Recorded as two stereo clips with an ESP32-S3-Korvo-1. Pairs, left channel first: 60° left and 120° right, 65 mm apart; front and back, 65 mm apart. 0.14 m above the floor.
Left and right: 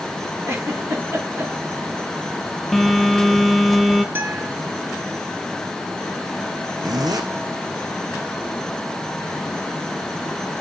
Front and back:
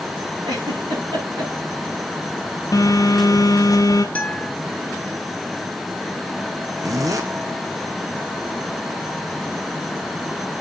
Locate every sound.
0.5 s a giggle: 175° right, 7 m
2.7 s a phone buzzing: 30° right, 1.6 m
4.2 s a guitar: 70° right, 2.5 m
6.8 s a zipper: 145° right, 1.6 m